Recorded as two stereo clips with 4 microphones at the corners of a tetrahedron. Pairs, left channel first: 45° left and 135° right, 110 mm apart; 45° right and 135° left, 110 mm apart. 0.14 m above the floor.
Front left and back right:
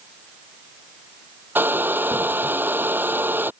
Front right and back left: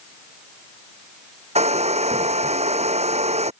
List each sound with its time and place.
1.6 s a hair dryer: 150° left